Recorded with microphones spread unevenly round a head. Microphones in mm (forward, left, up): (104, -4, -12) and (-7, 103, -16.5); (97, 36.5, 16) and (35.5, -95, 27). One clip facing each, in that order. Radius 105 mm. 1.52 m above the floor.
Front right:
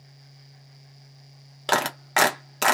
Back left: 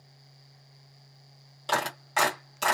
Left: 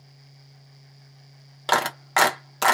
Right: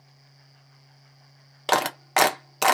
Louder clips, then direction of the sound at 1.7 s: Front right 5 dB, right 1 dB; 40° right.